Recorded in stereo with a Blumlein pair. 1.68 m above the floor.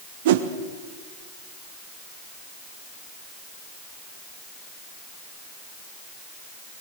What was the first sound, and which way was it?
A whoosh, 55° right.